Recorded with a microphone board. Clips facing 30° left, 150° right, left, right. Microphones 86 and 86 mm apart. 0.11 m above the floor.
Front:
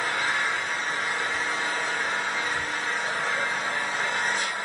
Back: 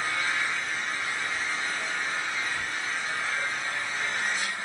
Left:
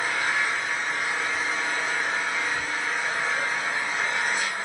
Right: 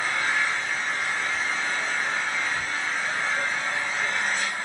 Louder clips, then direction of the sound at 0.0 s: Front 3 dB, even; 5° left.